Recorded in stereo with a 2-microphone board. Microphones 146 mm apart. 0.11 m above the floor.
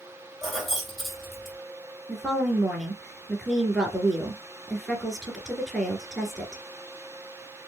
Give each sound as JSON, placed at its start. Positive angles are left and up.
{"t": 0.4, "sound": "keys jangling", "side_deg": 0, "distance_m": 2.5}
{"t": 2.1, "sound": "a woman speaking", "side_deg": 0, "distance_m": 1.5}